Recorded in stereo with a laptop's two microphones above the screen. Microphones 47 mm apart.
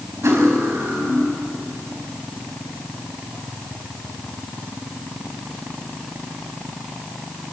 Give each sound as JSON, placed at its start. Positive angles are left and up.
{"t": 0.2, "sound": "cutlery clinking", "side_deg": -80, "distance_m": 4.5}